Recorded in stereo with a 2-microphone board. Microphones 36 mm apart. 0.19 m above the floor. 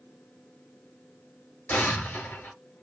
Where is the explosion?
50° left (ahead or behind), 4 m.